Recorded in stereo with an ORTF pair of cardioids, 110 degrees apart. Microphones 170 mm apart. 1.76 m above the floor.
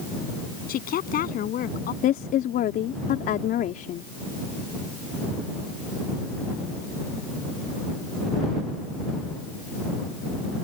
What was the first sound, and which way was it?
A woman speaking, 60° left.